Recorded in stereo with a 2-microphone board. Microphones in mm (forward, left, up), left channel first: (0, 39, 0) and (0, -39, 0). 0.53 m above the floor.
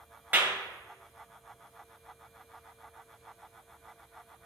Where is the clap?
20° right (ahead or behind), 1.9 m.